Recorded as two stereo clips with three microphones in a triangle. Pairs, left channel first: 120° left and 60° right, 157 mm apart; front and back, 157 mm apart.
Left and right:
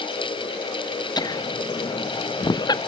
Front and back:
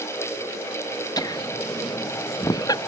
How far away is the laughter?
About 0.8 m.